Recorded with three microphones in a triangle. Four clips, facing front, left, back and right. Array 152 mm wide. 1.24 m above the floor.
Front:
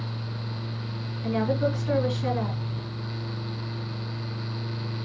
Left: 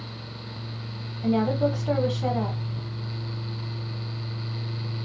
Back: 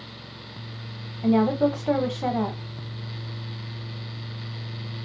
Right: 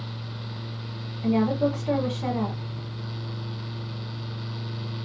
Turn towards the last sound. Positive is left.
turn(degrees=170)